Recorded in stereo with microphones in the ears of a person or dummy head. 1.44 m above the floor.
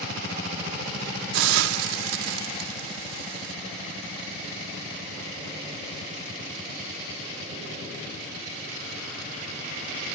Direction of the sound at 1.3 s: 90° right.